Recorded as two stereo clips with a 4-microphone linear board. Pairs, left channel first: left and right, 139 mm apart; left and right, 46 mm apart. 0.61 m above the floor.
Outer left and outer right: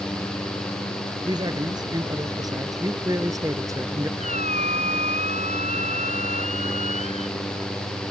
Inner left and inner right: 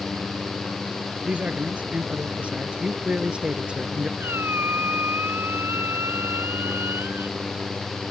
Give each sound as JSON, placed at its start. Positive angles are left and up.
{"t": 1.2, "sound": "a man speaking", "side_deg": -30}
{"t": 4.2, "sound": "a squeak", "side_deg": -55}